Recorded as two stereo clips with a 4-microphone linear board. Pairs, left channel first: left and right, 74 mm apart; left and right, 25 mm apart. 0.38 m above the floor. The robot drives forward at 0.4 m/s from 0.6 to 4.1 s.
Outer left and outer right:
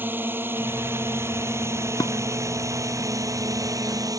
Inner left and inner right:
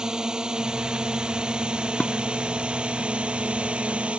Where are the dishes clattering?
65° left (ahead or behind).